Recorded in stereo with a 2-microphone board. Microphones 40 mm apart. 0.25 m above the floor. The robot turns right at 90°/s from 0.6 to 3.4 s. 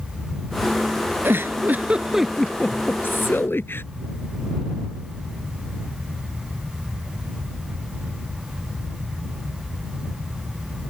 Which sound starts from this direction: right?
A giggle, at 1.2 s.